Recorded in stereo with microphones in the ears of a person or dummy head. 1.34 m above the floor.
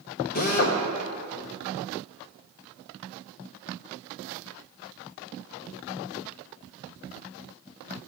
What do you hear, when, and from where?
0.3 s a drill: 40° left (ahead or behind), 0.8 m